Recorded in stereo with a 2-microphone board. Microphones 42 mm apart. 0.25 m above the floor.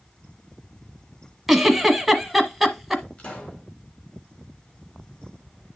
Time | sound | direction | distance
1.5 | a giggle | centre (ahead or behind) | 1.0 m
3.2 | a pop | 30° left (ahead or behind) | 3 m